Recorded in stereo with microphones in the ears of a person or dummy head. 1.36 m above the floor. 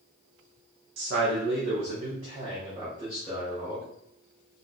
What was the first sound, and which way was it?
A man speaking, 75° right (ahead or behind).